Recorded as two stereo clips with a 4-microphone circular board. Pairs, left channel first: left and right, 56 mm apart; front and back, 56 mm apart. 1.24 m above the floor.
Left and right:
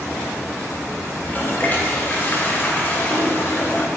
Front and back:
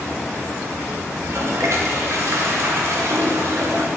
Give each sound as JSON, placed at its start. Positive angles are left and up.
{"t": 1.2, "sound": "a toilet flushing", "azimuth_deg": 145, "distance_m": 0.5}